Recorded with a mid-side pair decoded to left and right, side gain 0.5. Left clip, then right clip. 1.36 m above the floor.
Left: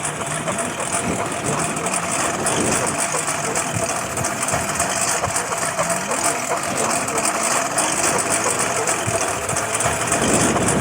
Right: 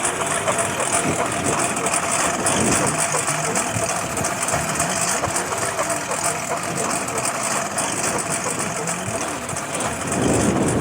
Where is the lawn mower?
15° right; by 10.8 s 40° left.